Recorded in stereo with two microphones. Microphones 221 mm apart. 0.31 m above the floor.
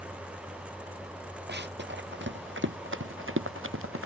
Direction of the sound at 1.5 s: 50° right (ahead or behind).